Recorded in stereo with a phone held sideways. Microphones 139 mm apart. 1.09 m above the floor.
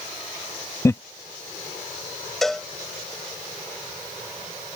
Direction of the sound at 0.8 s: 20° left (ahead or behind).